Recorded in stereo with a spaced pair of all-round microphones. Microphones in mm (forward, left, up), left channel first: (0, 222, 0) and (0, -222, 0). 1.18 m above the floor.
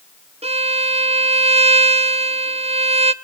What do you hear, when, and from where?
0.4 s a violin: 15° right (ahead or behind), 0.6 m